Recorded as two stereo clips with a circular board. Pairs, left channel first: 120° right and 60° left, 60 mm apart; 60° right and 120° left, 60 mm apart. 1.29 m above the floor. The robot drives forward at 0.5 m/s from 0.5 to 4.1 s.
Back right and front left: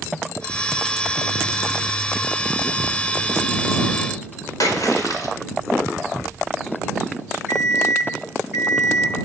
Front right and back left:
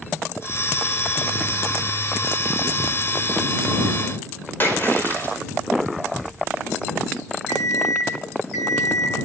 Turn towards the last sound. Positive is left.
turn(degrees=-35)